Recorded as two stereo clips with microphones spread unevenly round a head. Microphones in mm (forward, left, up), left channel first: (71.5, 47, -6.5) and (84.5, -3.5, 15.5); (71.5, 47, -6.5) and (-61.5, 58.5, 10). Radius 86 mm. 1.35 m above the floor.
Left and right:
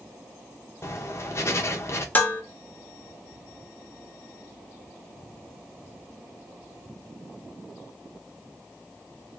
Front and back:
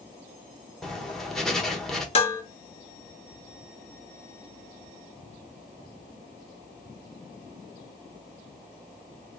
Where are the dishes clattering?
35° left, 1.1 m.